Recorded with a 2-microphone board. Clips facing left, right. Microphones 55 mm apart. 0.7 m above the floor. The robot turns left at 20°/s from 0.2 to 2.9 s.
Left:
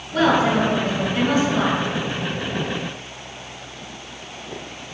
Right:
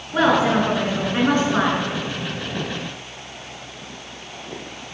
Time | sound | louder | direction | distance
0.1 | a woman speaking | even | 20° right | 7.5 m